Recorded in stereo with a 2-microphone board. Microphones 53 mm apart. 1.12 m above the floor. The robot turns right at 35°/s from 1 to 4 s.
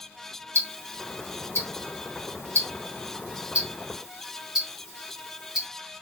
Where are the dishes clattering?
No dishes clattering in this recording.